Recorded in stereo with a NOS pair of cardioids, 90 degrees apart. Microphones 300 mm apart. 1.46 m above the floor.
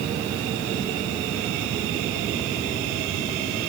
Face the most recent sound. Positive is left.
No sound to turn to.